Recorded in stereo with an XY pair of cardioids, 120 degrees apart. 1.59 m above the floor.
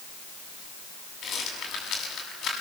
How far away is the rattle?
About 7.5 m.